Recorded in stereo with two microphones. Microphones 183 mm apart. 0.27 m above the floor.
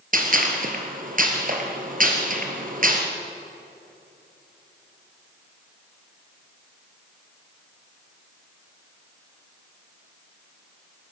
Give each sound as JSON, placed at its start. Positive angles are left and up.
{"t": 0.1, "sound": "a gunshot", "side_deg": -50, "distance_m": 3.0}